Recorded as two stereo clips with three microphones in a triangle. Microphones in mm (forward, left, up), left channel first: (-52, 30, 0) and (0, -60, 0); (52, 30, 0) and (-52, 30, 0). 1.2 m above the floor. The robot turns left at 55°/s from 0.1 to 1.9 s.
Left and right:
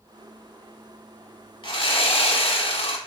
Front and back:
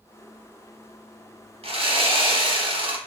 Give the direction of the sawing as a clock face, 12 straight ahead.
7 o'clock.